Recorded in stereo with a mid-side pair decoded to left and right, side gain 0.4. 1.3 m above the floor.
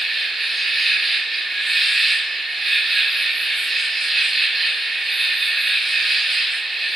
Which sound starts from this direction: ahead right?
An insect, at 0.0 s.